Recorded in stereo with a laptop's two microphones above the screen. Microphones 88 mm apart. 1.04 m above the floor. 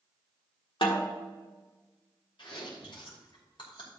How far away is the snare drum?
About 1.5 m.